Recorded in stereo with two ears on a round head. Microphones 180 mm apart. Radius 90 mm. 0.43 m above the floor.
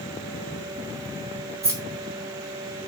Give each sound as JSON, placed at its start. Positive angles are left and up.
{"t": 1.6, "sound": "keys jangling", "side_deg": -15, "distance_m": 3.0}